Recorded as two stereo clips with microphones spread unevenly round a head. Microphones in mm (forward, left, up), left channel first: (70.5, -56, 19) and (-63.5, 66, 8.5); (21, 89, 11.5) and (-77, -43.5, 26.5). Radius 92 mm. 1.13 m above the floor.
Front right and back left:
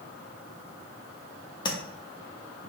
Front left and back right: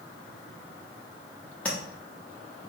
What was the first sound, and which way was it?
Tapping, 30° right.